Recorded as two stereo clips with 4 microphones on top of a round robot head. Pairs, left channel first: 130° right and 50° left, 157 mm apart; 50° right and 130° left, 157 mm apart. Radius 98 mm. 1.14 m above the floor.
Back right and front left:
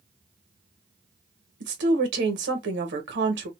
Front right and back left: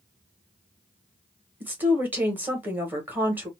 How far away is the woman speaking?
About 1.1 m.